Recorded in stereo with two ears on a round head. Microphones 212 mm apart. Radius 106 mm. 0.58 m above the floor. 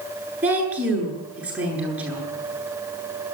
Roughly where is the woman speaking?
Centre.